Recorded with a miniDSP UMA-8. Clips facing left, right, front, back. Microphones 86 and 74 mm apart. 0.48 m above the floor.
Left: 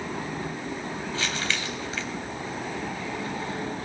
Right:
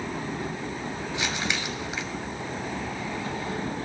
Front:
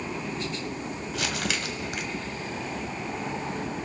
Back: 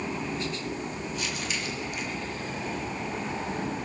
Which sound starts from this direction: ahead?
Crumpling, at 1.1 s.